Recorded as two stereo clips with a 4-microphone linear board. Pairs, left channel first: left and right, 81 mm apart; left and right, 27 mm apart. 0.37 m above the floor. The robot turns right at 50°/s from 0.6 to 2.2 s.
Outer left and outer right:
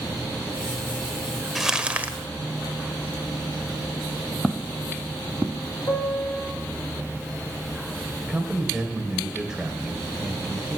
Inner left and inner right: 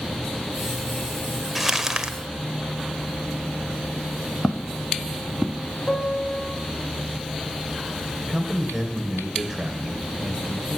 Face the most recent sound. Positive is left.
turn(degrees=-10)  # may be behind; listen again after turning